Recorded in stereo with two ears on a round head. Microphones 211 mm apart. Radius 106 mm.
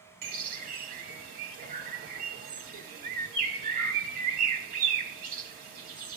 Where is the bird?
40° right (ahead or behind), 1.2 m.